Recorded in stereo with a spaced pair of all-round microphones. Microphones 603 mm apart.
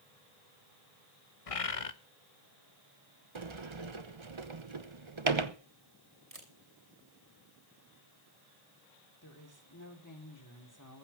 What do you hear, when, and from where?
1.5 s a bird: 65° left (ahead or behind), 1.0 m
3.4 s a sliding door: 50° right (ahead or behind), 1.1 m
6.3 s a camera shutter: 70° right (ahead or behind), 3 m
9.2 s a woman speaking: 30° left (ahead or behind), 4 m